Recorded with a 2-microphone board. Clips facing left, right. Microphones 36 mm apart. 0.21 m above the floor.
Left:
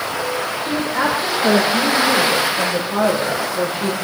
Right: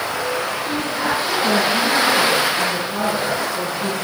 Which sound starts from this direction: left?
A woman speaking, at 0.6 s.